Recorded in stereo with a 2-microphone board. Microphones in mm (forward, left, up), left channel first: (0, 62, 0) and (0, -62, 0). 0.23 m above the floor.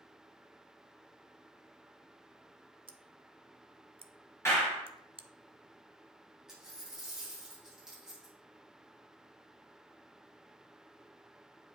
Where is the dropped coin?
5° right (ahead or behind), 4 m.